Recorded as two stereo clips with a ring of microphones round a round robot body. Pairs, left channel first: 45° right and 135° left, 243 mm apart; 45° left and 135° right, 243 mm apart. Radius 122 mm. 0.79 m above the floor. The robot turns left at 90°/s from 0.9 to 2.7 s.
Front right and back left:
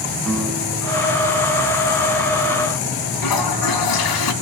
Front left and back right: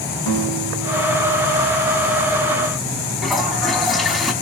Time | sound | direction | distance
0.3 | a guitar | 40° left | 4 m
3.2 | a toilet flushing | 45° right | 2.5 m